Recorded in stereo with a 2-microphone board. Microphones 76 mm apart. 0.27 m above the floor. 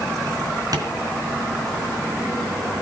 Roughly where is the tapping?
Right.